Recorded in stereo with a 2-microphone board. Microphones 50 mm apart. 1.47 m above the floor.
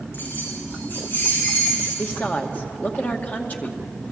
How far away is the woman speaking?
About 2 m.